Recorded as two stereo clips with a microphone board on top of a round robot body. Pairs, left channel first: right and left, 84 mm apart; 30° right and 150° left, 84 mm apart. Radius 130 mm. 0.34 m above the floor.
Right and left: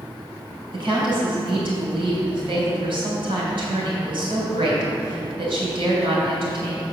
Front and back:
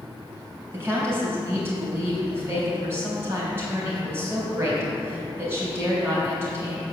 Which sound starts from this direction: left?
A woman speaking, at 0.7 s.